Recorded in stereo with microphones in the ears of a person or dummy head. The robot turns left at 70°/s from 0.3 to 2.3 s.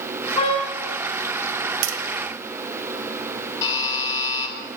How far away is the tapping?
About 0.8 m.